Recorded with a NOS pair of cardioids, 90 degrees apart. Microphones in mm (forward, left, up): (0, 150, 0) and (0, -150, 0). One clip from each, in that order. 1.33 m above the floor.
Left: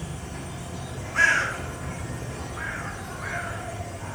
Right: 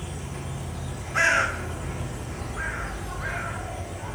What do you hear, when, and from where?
0.0 s an insect: 5° right, 1.2 m
1.1 s a bird: 35° right, 3.5 m